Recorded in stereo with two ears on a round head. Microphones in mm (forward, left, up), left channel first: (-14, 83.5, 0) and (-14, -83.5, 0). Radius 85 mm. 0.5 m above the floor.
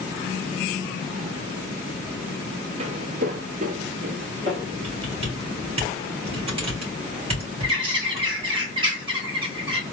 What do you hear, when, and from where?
2.8 s footsteps: 35° right (ahead or behind), 0.6 m; by 4.7 s 30° right (ahead or behind), 1.1 m
4.8 s typing on a keyboard: 30° right (ahead or behind), 2.5 m
7.6 s a bird: 30° right (ahead or behind), 2 m